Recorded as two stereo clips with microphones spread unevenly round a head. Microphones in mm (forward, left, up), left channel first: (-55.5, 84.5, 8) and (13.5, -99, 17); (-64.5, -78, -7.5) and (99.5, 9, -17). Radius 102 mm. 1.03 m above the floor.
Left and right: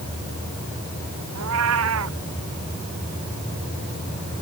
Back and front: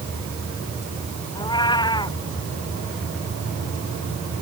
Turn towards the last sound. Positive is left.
turn(degrees=-85)